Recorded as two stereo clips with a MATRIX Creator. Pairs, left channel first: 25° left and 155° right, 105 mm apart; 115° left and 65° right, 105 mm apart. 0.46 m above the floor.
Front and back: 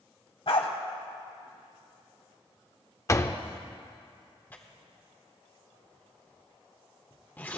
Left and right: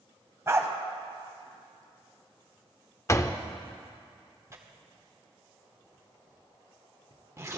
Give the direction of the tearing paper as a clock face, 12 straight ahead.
1 o'clock.